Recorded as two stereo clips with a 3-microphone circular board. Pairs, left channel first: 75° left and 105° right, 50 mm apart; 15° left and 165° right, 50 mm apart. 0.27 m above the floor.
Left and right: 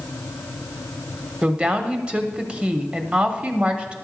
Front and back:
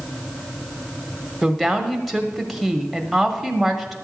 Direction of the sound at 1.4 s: 75° right.